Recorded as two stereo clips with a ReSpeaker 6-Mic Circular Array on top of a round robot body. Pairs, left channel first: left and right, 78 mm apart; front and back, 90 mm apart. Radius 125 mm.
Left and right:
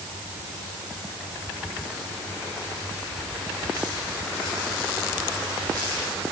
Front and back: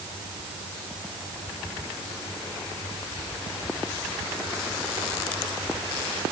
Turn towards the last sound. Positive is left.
No sound to turn to.